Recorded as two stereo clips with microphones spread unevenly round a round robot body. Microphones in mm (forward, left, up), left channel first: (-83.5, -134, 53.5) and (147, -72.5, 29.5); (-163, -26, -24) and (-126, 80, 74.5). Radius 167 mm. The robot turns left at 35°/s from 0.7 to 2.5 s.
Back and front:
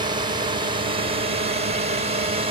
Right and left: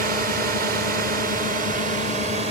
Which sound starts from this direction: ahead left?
A drone, at 0.0 s.